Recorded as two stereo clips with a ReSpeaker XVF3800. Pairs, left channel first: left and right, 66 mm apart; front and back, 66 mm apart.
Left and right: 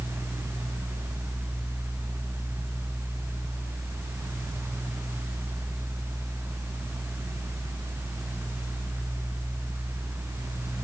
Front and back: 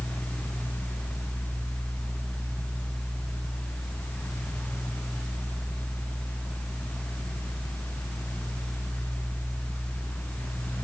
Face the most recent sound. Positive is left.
No sound to turn to.